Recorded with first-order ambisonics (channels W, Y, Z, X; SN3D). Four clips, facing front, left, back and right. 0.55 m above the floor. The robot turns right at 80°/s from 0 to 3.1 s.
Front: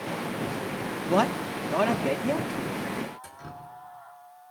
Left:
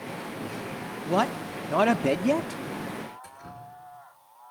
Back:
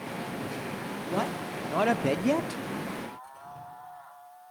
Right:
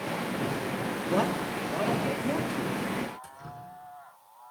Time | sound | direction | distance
1.1 | a man speaking | 30° left | 0.9 m
3.2 | dripping | 25° right | 4.5 m